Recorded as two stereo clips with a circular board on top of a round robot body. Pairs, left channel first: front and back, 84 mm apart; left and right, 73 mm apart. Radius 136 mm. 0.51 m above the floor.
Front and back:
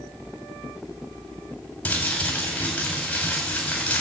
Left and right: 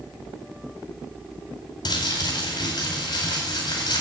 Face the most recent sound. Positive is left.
turn(degrees=75)